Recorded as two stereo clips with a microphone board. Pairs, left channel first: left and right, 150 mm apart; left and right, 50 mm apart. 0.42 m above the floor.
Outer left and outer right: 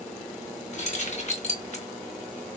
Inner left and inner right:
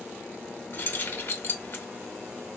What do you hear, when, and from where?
0.7 s keys jangling: 50° left (ahead or behind), 0.7 m